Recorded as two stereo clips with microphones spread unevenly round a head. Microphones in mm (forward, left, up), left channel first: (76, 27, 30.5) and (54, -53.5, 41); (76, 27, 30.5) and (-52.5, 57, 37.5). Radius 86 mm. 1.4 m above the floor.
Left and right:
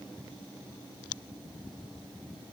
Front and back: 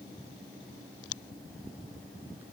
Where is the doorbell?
I don't hear a doorbell.